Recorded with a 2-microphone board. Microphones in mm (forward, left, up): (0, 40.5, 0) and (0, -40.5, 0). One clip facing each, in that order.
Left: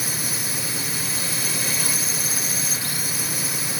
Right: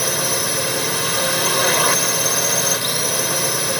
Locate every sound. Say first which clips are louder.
0.0 s a drone: right 9 dB; 70° right (ahead or behind)